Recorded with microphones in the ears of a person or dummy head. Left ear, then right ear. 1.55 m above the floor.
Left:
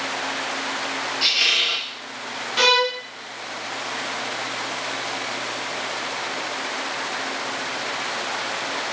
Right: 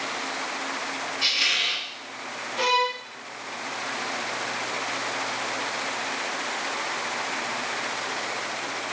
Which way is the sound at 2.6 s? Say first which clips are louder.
Left 5 dB; 45° left (ahead or behind).